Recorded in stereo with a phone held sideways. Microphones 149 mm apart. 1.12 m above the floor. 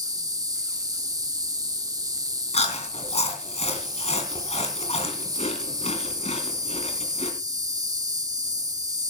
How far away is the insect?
About 1.1 m.